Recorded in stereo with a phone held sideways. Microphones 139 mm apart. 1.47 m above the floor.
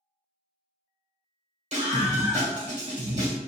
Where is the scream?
60° right (ahead or behind), 1.9 m.